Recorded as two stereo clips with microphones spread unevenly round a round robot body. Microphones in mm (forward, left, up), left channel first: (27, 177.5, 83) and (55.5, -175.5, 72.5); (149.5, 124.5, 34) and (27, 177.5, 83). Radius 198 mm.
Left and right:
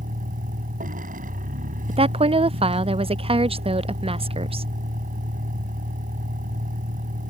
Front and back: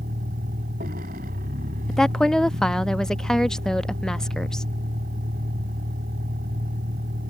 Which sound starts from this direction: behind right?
A vehicle, at 0.0 s.